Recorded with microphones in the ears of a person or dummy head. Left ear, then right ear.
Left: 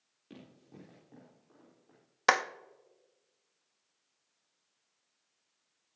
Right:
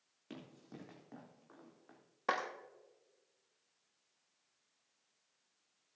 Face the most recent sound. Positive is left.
turn(degrees=55)  # may be behind; listen again after turning